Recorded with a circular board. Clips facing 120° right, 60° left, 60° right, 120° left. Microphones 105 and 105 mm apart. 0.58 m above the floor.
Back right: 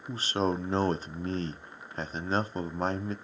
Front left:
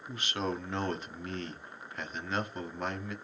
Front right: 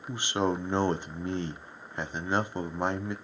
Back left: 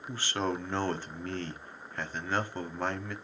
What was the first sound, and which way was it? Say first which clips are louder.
A man speaking: back right 6 dB, front right 4 dB; 115° right.